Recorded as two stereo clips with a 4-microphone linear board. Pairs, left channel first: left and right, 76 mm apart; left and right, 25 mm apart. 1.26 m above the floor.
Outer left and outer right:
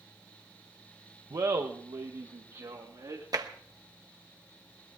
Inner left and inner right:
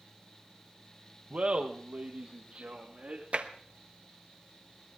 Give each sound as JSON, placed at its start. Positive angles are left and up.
{"t": 1.3, "sound": "laughter", "side_deg": -55, "distance_m": 0.7}
{"t": 3.3, "sound": "tapping", "side_deg": -50, "distance_m": 0.9}